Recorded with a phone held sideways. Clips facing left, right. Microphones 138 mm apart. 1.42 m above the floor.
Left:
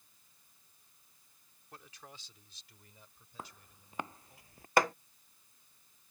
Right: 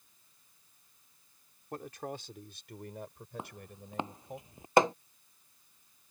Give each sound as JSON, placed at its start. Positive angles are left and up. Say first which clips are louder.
{"t": 1.7, "sound": "a man speaking", "louder": "right 14 dB", "side_deg": -55}
{"t": 3.4, "sound": "footsteps", "louder": "right 3 dB", "side_deg": -20}
{"t": 4.8, "sound": "hammering", "louder": "right 4 dB", "side_deg": -20}